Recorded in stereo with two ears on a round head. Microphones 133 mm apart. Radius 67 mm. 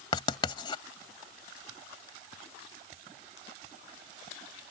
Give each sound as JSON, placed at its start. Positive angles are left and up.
{"t": 0.1, "sound": "writing", "side_deg": 35}